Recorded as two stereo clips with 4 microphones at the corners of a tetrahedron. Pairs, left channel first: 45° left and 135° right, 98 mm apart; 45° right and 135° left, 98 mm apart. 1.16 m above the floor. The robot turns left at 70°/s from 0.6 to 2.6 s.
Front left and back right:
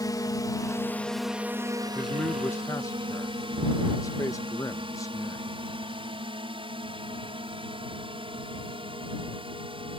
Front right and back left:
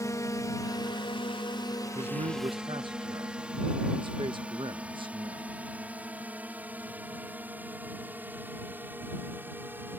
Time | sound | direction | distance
0.0 | a drone | 5° left | ?
1.9 | a man speaking | 150° left | ?